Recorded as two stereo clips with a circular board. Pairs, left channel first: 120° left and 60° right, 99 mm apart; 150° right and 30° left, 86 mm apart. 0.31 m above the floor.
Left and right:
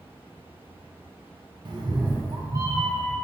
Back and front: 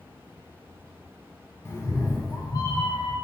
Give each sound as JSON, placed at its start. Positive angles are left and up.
{"t": 1.6, "sound": "a cat meowing", "azimuth_deg": -90, "distance_m": 0.6}